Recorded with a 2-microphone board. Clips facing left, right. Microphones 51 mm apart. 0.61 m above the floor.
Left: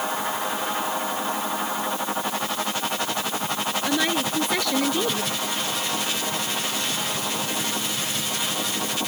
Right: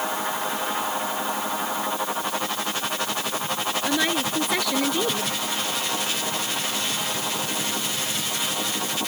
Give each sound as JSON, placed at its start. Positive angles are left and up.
{"t": 3.9, "sound": "a woman speaking", "side_deg": 0}